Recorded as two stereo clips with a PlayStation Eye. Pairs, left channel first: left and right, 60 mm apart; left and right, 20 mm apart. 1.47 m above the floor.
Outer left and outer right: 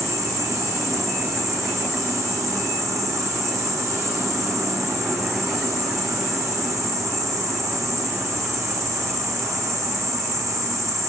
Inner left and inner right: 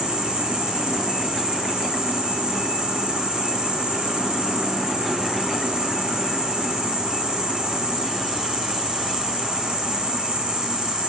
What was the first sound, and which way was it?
An insect, 50° right (ahead or behind).